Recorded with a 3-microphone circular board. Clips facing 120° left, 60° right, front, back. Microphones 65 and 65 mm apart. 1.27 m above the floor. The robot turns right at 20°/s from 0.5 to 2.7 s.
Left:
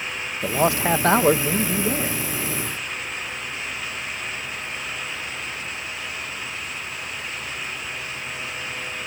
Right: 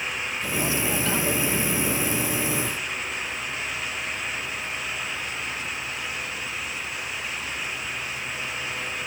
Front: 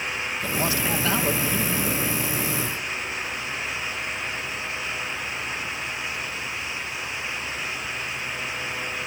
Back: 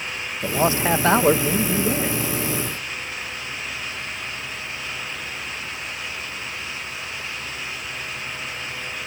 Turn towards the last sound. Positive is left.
turn(degrees=170)